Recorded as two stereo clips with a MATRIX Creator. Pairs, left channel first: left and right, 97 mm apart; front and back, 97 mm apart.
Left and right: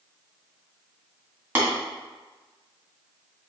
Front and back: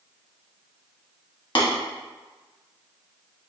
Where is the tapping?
20° right, 1.5 m.